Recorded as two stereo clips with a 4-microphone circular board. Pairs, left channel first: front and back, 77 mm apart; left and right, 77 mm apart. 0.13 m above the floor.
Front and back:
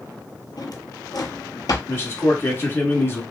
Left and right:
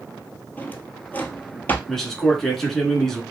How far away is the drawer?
About 0.7 m.